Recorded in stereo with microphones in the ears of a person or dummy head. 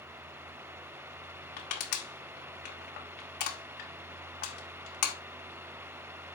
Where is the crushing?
45° left (ahead or behind), 1.5 m.